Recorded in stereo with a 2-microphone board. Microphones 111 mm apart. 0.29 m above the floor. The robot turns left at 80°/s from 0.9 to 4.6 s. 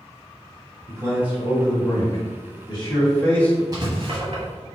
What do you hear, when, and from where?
0.9 s a man speaking: 35° right (ahead or behind), 2.0 m; by 3.6 s 5° left (ahead or behind), 2.0 m
3.7 s writing: 35° right (ahead or behind), 1.1 m; by 4.4 s 55° right (ahead or behind), 1.1 m